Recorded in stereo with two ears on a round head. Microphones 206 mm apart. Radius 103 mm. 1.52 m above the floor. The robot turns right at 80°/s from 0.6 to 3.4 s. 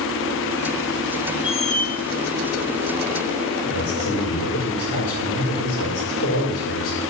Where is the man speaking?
70° left (ahead or behind), 5 m.